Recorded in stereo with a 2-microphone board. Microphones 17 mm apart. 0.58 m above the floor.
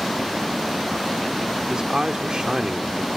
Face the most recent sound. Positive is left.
turn(degrees=-50)  # may be behind; listen again after turning